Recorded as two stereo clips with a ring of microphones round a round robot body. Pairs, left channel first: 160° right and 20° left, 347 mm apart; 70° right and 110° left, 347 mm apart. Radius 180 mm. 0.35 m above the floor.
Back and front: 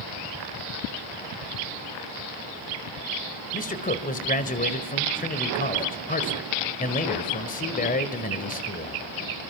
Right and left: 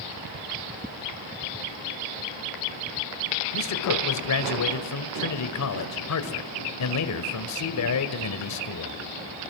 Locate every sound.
3.5 s a man speaking: 95° right, 1.7 m